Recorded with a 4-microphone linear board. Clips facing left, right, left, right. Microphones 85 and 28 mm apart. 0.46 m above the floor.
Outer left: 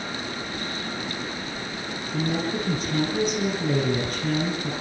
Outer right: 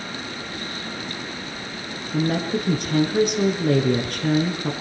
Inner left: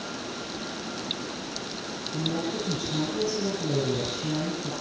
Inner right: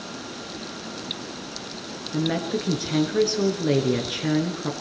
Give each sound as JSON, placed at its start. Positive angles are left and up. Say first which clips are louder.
{"t": 2.1, "sound": "a woman speaking", "louder": "outer right 4 dB, inner right 5 dB", "side_deg": -65, "distance_m": 6.5}